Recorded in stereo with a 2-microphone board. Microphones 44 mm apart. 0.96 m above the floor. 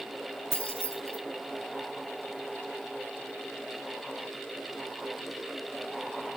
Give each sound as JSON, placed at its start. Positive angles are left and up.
{"t": 0.5, "sound": "keys jangling", "side_deg": -85, "distance_m": 0.9}